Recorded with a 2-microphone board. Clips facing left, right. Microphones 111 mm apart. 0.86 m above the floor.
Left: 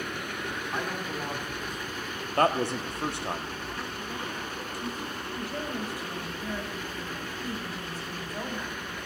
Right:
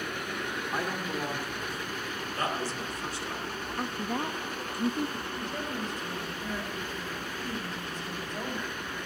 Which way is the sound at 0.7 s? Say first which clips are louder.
Right 1 dB; 5° right (ahead or behind).